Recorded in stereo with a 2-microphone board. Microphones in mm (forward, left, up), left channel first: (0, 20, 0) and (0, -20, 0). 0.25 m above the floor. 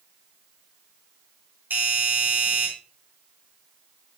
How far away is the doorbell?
About 4 m.